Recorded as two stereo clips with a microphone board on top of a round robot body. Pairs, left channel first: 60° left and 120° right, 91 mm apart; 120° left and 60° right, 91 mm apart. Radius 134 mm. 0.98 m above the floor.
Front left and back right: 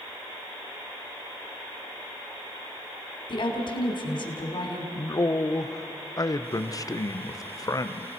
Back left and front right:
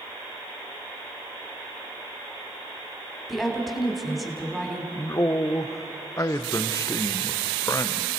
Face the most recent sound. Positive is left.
turn(degrees=85)